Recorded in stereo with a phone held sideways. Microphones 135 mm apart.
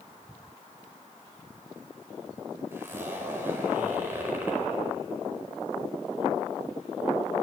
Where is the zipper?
15° right (ahead or behind), 4.5 m.